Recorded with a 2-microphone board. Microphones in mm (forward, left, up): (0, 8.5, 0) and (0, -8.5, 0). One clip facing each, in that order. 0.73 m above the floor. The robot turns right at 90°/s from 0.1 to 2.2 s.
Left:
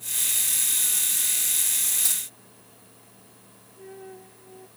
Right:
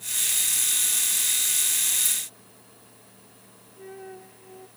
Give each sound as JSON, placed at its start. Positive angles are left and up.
{"t": 2.0, "sound": "keys jangling", "side_deg": 75}
{"t": 3.8, "sound": "a flute", "side_deg": -15}